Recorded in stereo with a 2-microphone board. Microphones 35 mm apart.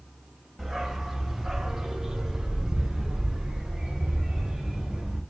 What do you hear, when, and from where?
0.6 s a dog barking: centre (ahead or behind), 0.9 m; by 5.2 s 15° right (ahead or behind), 2.5 m